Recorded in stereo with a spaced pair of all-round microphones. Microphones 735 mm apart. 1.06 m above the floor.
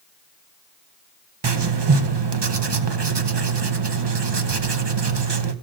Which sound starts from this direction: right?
Writing, at 1.4 s.